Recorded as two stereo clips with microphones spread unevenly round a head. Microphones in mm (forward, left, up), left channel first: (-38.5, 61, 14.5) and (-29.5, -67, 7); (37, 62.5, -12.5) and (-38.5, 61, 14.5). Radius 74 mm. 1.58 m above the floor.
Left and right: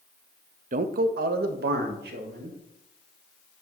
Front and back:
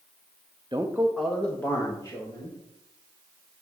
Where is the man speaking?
115° right, 0.6 m; by 2.6 s 65° right, 1.7 m.